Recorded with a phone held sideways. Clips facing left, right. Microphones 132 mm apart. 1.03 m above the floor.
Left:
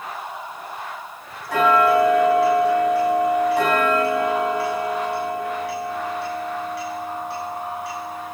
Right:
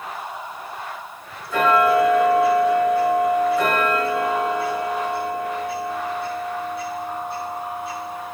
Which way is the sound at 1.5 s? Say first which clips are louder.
Left 1 dB; 90° left.